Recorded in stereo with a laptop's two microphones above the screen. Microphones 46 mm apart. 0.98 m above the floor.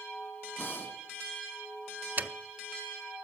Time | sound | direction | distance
0.6 | breathing | 45° left (ahead or behind) | 3.5 m
2.2 | a dropped coin | 40° right (ahead or behind) | 0.5 m